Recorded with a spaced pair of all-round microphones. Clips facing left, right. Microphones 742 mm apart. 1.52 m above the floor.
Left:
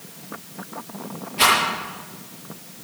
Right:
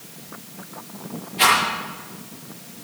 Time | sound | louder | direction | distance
1.4 | a rattle | even | 50° left (ahead or behind) | 9 m